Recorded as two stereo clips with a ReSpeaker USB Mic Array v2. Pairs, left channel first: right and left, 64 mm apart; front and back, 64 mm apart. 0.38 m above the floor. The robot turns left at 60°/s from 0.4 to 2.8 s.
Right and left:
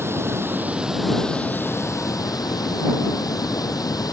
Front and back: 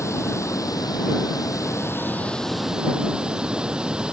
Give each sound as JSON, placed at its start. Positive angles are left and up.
{"t": 0.0, "sound": "running water", "azimuth_deg": 40}